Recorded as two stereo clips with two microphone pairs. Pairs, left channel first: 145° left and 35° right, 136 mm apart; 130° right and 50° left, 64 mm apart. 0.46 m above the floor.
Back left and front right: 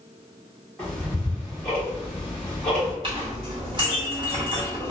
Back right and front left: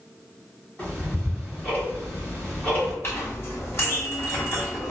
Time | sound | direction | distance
0.8 | ticking | 155° right | 1.2 m
3.0 | a clink | 80° right | 1.2 m